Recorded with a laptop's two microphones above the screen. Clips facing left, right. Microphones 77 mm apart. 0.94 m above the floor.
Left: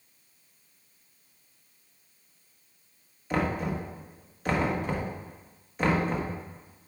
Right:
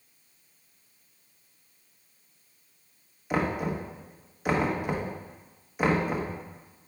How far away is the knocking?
About 1.0 m.